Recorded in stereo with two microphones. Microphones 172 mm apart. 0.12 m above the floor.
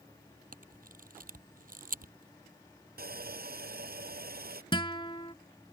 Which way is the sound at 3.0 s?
65° right (ahead or behind).